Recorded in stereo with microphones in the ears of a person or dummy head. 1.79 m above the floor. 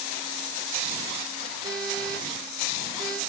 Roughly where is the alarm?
Right.